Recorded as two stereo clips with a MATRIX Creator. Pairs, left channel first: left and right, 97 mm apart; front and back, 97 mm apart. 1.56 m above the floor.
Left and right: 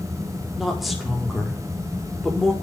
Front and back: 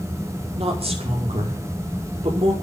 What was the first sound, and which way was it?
A woman speaking, straight behind.